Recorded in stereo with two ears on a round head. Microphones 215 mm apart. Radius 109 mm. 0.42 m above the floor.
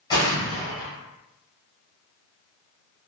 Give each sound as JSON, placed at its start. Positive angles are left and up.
{"t": 0.1, "sound": "an explosion", "side_deg": 20, "distance_m": 1.3}